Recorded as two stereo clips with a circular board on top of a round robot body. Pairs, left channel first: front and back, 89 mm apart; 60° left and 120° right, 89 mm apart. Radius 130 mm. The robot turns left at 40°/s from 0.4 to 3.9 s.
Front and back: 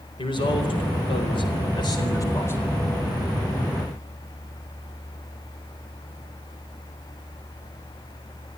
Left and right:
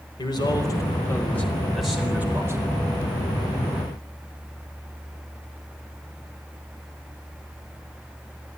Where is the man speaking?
25° left, 4.5 m; by 2.8 s 75° right, 4.5 m.